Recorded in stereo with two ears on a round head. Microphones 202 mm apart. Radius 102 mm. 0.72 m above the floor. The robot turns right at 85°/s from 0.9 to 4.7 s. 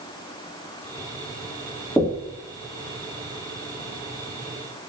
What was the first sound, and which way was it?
Knocking, 175° left.